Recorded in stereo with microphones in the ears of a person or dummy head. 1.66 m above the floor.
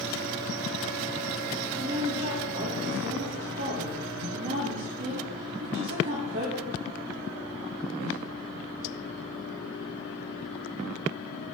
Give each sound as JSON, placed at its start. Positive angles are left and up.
{"t": 1.8, "sound": "a woman speaking", "side_deg": -45, "distance_m": 3.0}